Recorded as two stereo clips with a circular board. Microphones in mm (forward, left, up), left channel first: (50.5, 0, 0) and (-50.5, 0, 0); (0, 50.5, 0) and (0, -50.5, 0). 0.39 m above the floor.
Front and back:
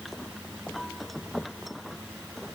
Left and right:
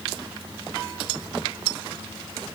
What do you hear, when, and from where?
Only background noise.